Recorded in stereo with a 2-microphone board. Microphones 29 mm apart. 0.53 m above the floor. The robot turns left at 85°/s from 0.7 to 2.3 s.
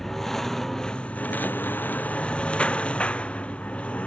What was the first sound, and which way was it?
A lawn mower, 15° left (ahead or behind).